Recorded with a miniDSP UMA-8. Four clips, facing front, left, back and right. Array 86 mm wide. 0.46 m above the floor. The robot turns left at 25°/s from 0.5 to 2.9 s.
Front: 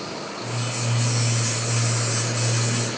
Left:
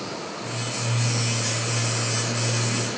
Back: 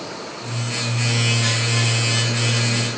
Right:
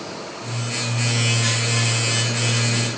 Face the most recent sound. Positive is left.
No sound to turn to.